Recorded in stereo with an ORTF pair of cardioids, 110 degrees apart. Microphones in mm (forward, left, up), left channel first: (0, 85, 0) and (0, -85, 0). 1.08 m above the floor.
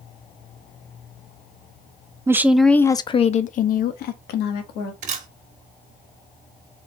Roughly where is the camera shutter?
Ahead right.